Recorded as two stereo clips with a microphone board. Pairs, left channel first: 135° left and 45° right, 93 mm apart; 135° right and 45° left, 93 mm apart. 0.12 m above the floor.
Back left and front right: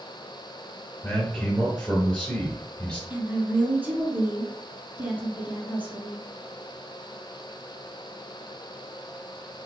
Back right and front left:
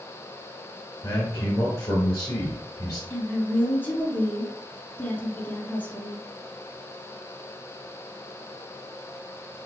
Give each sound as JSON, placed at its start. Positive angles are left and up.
{"t": 1.0, "sound": "a man speaking", "azimuth_deg": -165, "distance_m": 1.9}
{"t": 3.1, "sound": "a woman speaking", "azimuth_deg": -90, "distance_m": 1.3}